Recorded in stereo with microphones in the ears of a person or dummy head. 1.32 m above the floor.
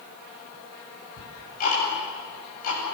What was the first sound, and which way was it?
Ticking, 50° left (ahead or behind).